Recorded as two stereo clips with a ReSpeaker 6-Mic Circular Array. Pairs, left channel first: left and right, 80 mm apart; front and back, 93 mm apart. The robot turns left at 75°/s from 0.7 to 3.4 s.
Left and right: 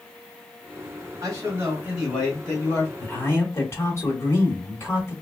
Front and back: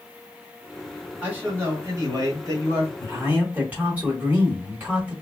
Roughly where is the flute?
I don't hear a flute.